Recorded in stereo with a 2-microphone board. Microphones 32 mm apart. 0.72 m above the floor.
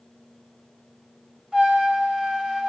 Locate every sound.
1.5 s a trumpet: 30° right (ahead or behind), 3 m